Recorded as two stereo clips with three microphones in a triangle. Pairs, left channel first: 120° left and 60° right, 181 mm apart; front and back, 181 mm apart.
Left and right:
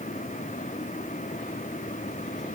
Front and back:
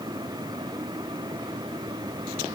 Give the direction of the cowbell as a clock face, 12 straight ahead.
I don't hear a cowbell.